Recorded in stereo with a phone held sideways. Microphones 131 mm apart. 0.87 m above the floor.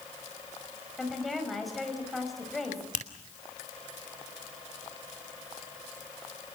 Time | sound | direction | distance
1.0 | a woman speaking | centre (ahead or behind) | 5.5 m
2.9 | a finger snap | 70° left (ahead or behind) | 2.5 m